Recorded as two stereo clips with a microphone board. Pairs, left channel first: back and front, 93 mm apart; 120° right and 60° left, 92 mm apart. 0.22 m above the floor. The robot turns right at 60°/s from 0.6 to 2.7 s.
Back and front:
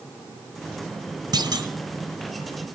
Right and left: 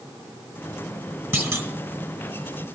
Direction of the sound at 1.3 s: Straight ahead.